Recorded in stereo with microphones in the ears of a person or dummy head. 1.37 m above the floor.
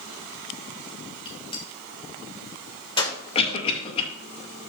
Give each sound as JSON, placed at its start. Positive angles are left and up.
{"t": 1.2, "sound": "a gunshot", "side_deg": 20, "distance_m": 1.7}
{"t": 3.4, "sound": "a cough", "side_deg": 30, "distance_m": 2.0}